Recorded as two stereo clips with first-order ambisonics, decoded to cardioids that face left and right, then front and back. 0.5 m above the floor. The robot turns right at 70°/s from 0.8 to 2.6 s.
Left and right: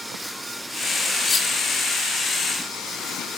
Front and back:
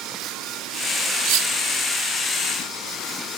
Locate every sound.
1.2 s cutlery clinking: 155° left, 0.8 m; by 1.5 s 175° left, 0.8 m